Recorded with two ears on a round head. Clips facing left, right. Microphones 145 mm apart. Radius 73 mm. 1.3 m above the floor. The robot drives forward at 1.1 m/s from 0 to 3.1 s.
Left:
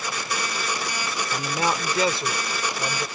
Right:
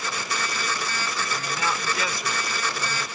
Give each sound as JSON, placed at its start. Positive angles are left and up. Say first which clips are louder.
{"t": 1.3, "sound": "a man speaking", "louder": "left 6 dB", "side_deg": 30}